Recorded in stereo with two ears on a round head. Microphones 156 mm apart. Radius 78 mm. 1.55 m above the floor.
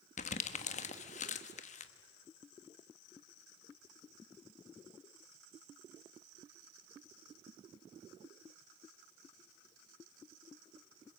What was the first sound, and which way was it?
Crumpling, 40° left (ahead or behind).